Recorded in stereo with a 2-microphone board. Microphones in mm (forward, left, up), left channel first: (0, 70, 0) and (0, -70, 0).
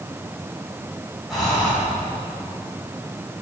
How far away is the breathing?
About 6.5 m.